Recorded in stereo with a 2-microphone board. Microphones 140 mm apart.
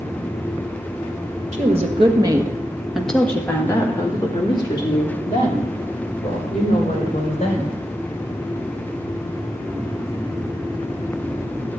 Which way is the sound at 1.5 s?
55° right (ahead or behind).